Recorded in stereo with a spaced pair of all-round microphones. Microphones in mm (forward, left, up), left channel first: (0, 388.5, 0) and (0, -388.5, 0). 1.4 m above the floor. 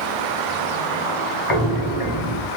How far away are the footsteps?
About 1.5 m.